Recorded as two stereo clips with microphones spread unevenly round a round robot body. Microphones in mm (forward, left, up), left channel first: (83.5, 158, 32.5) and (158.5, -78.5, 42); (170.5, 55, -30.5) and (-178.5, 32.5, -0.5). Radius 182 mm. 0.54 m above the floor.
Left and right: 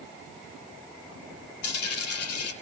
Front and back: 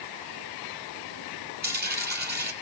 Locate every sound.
1.6 s a dropped coin: 120° left, 3 m